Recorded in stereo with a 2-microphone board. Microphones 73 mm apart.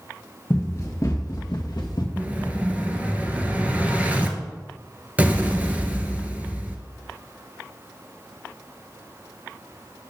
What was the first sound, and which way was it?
Running footsteps, 40° left (ahead or behind).